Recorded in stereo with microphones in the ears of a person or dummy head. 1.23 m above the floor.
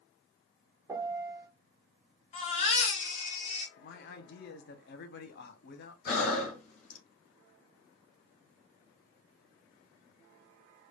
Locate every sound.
0.9 s a piano: 5° right (ahead or behind), 0.5 m
2.3 s a baby crying: 35° left (ahead or behind), 1.8 m
3.8 s a man speaking: 55° left (ahead or behind), 0.6 m
6.0 s breathing: 40° left (ahead or behind), 1.4 m